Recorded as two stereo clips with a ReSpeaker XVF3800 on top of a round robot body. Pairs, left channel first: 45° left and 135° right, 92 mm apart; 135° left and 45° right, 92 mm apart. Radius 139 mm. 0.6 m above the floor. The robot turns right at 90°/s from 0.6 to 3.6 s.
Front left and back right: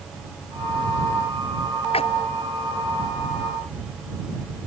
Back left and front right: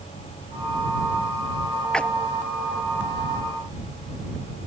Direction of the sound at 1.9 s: 50° left.